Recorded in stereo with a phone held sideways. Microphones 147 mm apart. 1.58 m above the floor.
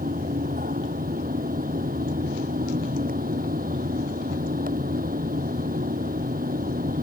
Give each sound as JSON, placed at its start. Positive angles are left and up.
{"t": 0.0, "sound": "a fan", "side_deg": -75}